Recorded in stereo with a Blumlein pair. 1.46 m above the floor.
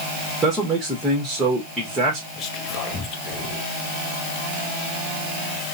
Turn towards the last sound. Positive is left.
turn(degrees=30)